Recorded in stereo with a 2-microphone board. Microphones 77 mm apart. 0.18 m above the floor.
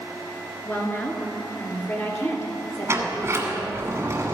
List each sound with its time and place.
0.7 s a woman speaking: 25° left (ahead or behind), 2 m; by 3.9 s 40° left (ahead or behind), 3.5 m
2.9 s a sliding door: 35° right (ahead or behind), 1.5 m